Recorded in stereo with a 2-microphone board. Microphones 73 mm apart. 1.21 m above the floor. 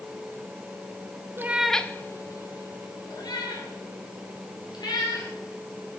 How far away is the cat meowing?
About 0.6 m.